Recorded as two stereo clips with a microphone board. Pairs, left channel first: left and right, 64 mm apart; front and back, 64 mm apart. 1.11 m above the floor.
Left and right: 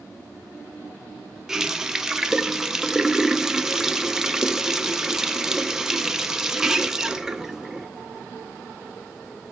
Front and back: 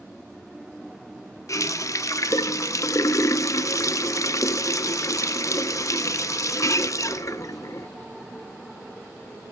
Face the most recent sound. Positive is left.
turn(degrees=-10)